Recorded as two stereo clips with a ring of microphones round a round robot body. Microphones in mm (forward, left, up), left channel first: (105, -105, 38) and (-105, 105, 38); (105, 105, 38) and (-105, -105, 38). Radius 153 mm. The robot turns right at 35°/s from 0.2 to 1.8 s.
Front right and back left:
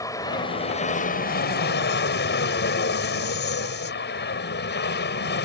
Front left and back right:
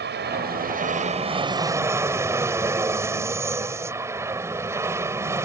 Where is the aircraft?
115° right; by 5.5 s 60° right.